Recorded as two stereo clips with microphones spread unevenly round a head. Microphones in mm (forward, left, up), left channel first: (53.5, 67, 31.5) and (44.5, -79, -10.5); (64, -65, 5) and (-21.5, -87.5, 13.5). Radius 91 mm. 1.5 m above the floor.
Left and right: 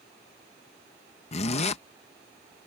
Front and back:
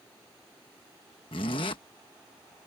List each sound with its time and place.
1.3 s a zipper: 65° left